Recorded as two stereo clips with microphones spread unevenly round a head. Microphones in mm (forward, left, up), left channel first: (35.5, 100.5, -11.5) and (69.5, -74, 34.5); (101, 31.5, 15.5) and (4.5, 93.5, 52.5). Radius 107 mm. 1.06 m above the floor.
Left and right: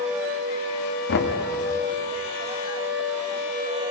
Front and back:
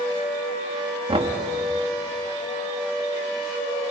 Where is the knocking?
105° left, 2 m.